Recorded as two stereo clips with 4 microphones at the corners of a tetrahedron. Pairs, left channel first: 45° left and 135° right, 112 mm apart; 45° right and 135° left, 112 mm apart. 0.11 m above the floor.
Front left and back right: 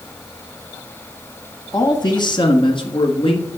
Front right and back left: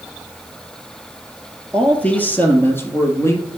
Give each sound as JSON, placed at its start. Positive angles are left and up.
{"t": 1.7, "sound": "a man speaking", "azimuth_deg": 30, "distance_m": 1.3}